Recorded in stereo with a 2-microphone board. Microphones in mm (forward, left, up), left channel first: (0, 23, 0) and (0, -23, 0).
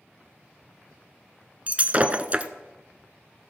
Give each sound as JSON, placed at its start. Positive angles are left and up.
{"t": 1.7, "sound": "breaking glass", "side_deg": -30, "distance_m": 0.6}